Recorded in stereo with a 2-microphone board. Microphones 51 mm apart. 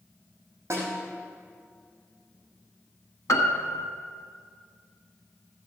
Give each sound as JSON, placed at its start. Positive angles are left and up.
{"t": 0.7, "sound": "a snare drum", "side_deg": -55, "distance_m": 5.0}
{"t": 3.3, "sound": "a piano", "side_deg": 80, "distance_m": 1.3}